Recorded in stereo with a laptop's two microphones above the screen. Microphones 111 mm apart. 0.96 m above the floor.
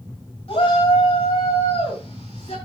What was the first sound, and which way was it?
A shout, 60° left (ahead or behind).